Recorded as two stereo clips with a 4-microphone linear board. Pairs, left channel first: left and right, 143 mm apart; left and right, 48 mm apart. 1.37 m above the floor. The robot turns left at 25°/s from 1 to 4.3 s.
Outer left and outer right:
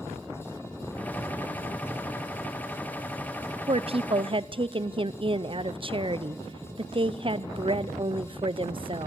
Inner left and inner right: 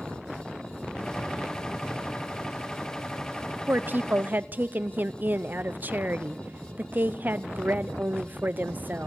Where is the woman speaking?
45° right (ahead or behind), 0.5 m; by 9.1 s 40° right (ahead or behind), 0.5 m.